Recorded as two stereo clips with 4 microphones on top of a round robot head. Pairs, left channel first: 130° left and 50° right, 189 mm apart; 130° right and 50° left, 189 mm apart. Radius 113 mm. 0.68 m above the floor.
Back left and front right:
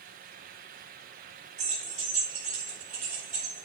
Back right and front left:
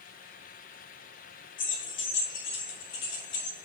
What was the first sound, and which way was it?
Keys jangling, 105° right.